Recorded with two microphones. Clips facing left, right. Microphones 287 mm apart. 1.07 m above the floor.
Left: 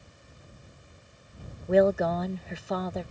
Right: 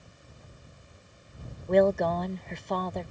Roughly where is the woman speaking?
Centre.